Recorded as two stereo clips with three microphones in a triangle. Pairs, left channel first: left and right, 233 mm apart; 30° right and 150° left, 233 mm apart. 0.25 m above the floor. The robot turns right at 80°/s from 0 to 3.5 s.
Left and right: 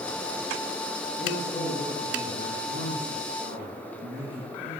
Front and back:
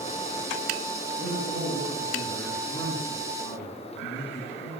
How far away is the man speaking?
About 3.5 m.